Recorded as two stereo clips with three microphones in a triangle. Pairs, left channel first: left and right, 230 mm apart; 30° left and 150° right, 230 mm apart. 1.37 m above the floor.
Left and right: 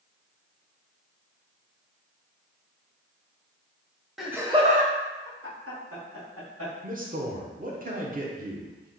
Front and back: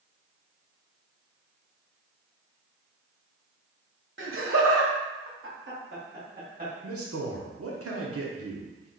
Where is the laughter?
Straight behind, 0.7 m; by 6.7 s 95° right, 1.5 m.